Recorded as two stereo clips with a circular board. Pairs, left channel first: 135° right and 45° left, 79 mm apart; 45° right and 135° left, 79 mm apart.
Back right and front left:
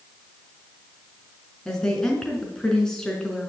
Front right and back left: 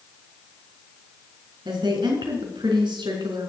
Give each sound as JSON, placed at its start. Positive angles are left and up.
{"t": 1.6, "sound": "a woman speaking", "azimuth_deg": 140, "distance_m": 4.5}